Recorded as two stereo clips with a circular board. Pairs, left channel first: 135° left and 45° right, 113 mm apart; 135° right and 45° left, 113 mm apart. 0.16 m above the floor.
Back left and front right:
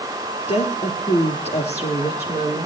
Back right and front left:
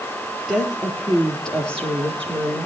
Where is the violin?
I don't hear a violin.